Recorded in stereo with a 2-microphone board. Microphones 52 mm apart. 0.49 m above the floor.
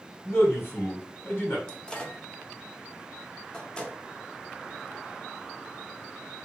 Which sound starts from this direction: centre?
A microwave, at 1.7 s.